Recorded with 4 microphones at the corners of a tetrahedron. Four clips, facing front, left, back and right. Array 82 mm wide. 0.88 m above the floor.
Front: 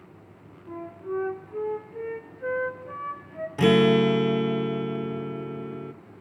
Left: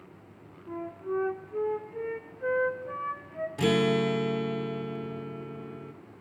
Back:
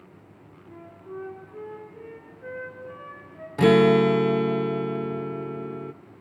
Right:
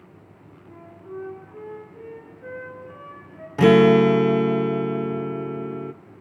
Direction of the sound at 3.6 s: 110° right.